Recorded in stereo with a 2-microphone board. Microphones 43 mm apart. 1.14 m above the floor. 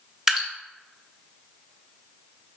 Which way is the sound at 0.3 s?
10° right (ahead or behind).